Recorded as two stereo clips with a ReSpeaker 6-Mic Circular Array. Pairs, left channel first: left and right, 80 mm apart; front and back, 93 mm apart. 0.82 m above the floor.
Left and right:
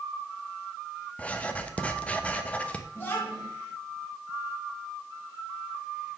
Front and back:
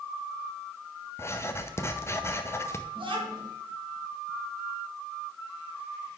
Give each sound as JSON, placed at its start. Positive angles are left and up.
{"t": 1.2, "sound": "writing", "azimuth_deg": 30, "distance_m": 0.6}
{"t": 3.0, "sound": "a child speaking", "azimuth_deg": 155, "distance_m": 2.5}